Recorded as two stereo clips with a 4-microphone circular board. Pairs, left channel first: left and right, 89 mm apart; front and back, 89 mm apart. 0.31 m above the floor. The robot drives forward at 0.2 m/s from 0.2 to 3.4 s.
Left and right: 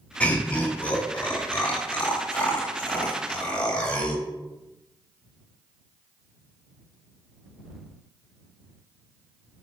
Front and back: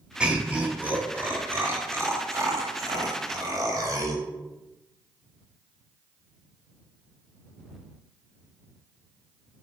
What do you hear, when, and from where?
0.2 s laughter: 125° left, 0.9 m; by 4.2 s 165° left, 1.2 m